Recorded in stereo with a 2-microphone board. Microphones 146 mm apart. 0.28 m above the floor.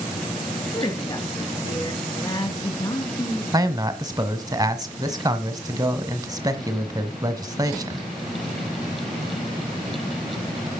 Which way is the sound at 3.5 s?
25° right (ahead or behind).